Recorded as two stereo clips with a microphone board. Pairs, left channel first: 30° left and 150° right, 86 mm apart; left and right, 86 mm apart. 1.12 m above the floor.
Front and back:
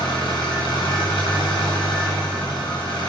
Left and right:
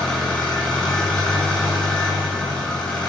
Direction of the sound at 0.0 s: 10° left.